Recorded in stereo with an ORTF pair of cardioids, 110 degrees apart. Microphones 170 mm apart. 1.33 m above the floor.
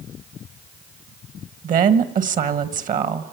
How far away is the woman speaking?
About 1.5 m.